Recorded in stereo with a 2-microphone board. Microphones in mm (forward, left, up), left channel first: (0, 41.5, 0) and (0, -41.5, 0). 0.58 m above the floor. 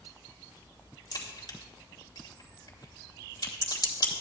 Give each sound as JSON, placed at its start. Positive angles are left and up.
{"t": 1.1, "sound": "a crack", "side_deg": 50, "distance_m": 2.5}